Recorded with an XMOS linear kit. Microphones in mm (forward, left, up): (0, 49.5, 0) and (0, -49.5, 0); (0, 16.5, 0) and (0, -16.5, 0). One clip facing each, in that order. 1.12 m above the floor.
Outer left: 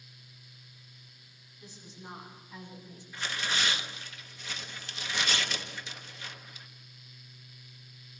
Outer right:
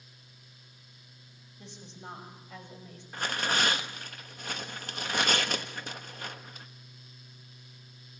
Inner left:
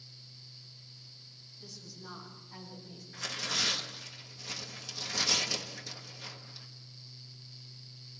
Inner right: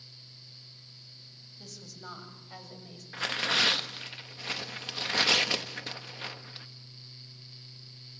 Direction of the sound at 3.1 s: 50° right (ahead or behind).